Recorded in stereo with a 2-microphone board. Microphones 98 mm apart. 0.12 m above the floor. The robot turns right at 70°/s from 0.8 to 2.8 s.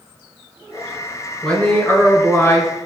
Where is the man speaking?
10° left (ahead or behind), 1.1 m; by 2.7 s 20° left (ahead or behind), 1.1 m.